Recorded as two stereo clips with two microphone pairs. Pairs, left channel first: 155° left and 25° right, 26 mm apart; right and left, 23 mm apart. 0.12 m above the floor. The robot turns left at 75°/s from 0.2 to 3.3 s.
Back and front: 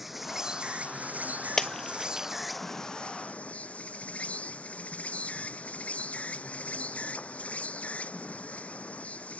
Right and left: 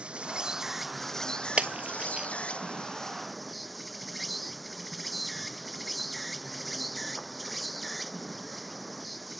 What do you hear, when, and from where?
0.0 s an insect: 55° left; by 9.4 s straight behind
1.6 s breaking glass: 85° left; by 2.3 s 35° left